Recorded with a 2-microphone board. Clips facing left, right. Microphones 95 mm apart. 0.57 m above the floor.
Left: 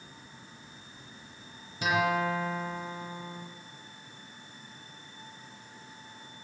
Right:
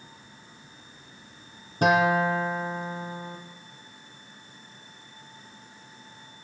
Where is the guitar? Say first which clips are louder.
Right 6 dB; 50° right (ahead or behind), 6 m.